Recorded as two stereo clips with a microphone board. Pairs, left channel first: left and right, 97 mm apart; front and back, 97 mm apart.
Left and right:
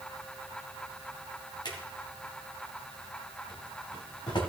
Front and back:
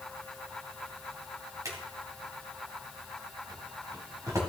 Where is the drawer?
125° left, 2.5 m.